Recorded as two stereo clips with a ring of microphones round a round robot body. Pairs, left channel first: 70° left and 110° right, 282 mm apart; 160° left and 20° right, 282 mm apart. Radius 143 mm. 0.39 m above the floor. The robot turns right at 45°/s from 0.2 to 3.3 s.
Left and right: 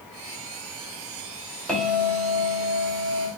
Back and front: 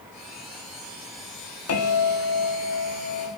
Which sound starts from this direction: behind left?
A bell, at 1.7 s.